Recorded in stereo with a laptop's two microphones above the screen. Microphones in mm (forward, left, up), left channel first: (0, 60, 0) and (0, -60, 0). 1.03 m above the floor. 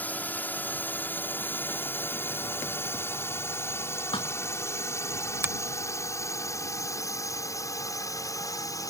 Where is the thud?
45° left (ahead or behind).